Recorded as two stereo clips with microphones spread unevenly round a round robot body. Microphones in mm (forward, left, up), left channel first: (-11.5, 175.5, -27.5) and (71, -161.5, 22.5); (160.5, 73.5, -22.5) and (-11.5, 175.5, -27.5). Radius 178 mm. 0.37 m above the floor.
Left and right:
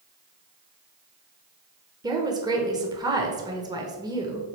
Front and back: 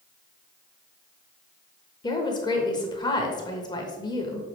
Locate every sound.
2.0 s a woman speaking: 5° left, 1.0 m